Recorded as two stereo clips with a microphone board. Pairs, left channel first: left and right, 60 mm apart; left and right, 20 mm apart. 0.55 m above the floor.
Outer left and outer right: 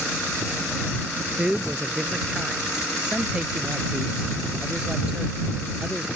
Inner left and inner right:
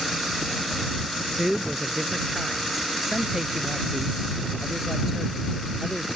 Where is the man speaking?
15° right (ahead or behind).